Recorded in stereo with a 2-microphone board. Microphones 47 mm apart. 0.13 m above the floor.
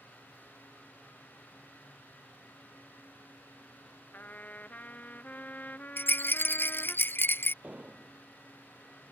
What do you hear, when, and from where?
4.1 s a trumpet: 35° left (ahead or behind)
6.0 s a rattle: 50° left (ahead or behind)
7.6 s an explosion: 30° right (ahead or behind)